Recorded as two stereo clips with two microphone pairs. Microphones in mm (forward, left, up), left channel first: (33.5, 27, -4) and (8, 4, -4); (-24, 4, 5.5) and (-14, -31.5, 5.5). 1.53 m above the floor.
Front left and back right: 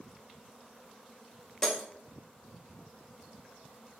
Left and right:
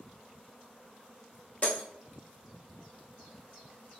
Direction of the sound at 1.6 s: 110° left.